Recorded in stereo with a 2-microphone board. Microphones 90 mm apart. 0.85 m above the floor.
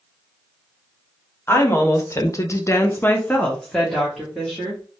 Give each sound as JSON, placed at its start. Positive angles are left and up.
{"t": 1.5, "sound": "a woman speaking", "side_deg": 30, "distance_m": 1.2}